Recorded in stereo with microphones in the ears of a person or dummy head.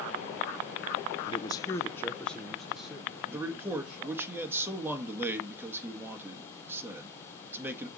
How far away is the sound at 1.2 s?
About 0.6 m.